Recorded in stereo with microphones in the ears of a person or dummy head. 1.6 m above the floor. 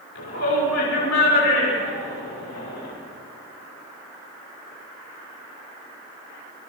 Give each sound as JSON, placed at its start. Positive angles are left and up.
{"t": 0.1, "sound": "a shout", "side_deg": 70, "distance_m": 5.5}